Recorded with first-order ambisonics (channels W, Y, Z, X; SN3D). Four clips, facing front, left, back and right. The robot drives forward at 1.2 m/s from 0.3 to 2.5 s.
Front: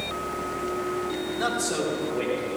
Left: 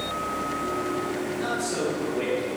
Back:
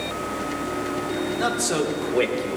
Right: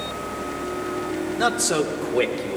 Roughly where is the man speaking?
Right.